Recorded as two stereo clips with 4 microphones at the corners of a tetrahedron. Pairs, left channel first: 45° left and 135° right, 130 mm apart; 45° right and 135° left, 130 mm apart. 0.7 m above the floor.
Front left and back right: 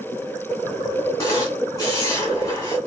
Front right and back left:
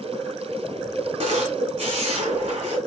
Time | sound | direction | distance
1.2 | a camera shutter | 110° left | 2 m